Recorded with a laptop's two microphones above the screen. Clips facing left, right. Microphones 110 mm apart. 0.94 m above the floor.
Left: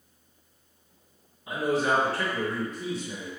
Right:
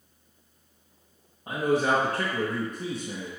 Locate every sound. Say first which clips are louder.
1.5 s a man speaking: right 2 dB; 50° right (ahead or behind), 1.2 m